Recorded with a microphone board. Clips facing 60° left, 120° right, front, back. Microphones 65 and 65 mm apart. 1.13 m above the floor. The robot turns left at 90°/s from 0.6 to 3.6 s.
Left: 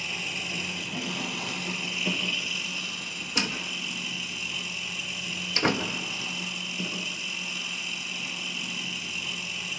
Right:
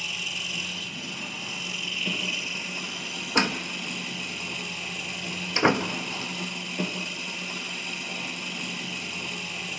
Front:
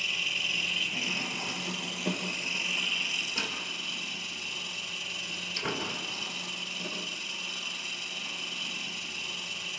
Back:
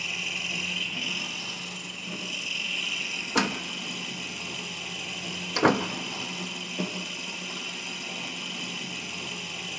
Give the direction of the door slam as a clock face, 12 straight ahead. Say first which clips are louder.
Right 6 dB, back 8 dB; 6 o'clock.